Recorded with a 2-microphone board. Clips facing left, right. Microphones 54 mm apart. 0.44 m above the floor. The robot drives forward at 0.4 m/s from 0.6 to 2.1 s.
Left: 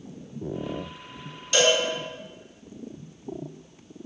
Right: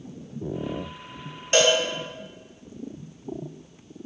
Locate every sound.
1.5 s a cowbell: 45° right (ahead or behind), 0.6 m; by 1.8 s 40° right (ahead or behind), 0.7 m